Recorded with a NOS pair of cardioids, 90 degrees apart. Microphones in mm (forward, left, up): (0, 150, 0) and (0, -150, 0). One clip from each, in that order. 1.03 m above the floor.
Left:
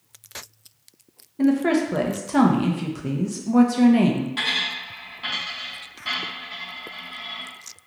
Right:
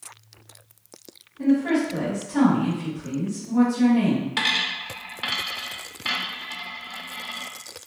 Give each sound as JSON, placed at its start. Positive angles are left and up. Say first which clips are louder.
{"t": 1.4, "sound": "a woman speaking", "louder": "left 2 dB", "azimuth_deg": 70, "distance_m": 0.8}
{"t": 4.4, "sound": "a dropped coin", "louder": "right 2 dB", "azimuth_deg": -55, "distance_m": 0.9}